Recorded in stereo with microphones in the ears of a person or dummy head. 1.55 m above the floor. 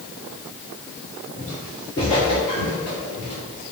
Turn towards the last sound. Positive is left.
turn(degrees=45)  # may be behind; listen again after turning